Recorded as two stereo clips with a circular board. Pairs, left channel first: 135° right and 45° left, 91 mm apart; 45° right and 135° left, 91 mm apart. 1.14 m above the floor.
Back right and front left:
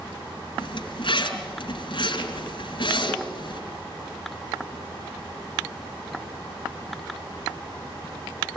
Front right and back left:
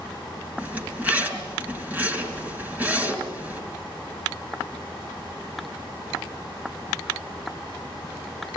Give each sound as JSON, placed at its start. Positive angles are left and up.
{"t": 0.6, "sound": "a zipper", "azimuth_deg": -155, "distance_m": 3.5}